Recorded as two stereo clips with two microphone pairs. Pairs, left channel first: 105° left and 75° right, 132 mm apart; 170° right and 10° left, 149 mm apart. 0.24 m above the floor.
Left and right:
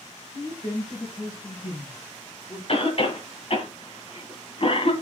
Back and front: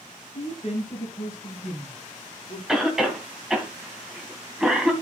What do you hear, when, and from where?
0.3 s a woman speaking: 145° left, 4 m; by 2.6 s 165° left, 4 m
2.7 s a cough: 95° left, 2 m